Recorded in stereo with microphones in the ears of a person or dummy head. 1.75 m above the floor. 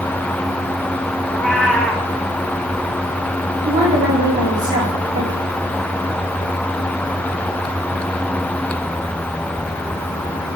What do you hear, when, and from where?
1.3 s a cat meowing: 5° left (ahead or behind), 1.1 m
3.6 s a woman speaking: 25° right (ahead or behind), 3.5 m